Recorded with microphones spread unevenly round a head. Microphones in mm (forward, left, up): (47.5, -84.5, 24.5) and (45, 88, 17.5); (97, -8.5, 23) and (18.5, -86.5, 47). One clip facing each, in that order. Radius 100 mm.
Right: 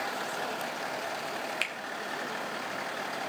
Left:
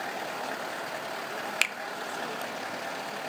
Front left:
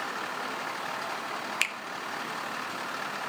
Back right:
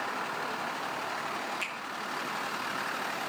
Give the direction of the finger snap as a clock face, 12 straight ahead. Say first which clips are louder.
Left 1 dB, front left 2 dB; 10 o'clock.